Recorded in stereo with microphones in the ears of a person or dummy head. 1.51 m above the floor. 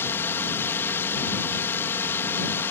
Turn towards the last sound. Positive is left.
turn(degrees=10)  # may be behind; listen again after turning